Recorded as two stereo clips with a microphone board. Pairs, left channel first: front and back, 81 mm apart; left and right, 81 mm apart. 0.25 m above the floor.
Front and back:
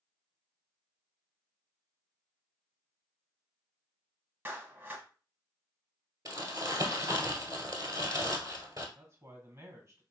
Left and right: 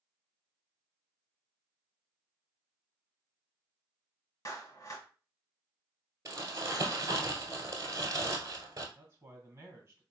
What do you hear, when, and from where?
4.5 s a clap: 125° left, 1.1 m
6.2 s crumpling: 140° right, 1.5 m
8.9 s a man speaking: 135° right, 2 m